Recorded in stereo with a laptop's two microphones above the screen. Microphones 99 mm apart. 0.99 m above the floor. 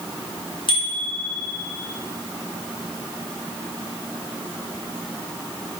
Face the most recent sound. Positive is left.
turn(degrees=60)  # may be behind; listen again after turning